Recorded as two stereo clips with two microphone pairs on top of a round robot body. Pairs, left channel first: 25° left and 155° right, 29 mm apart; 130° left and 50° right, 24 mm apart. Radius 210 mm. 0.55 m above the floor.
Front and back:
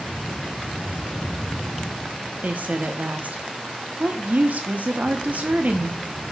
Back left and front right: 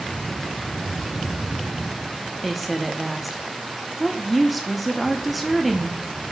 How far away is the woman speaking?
About 1.3 m.